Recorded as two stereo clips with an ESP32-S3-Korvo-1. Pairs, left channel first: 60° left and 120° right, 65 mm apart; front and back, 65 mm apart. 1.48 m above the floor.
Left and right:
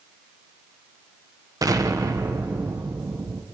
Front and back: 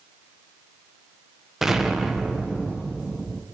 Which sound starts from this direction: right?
An explosion, at 1.6 s.